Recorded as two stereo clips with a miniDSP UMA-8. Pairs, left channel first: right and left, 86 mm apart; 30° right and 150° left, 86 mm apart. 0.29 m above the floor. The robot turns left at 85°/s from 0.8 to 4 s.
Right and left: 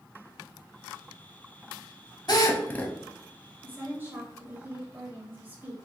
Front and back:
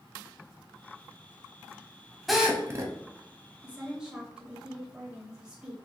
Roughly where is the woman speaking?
Behind left.